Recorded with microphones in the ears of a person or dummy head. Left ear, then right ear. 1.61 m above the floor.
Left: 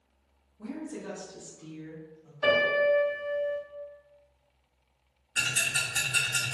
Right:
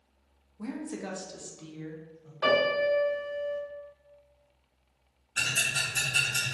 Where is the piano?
45° right (ahead or behind), 1.7 m.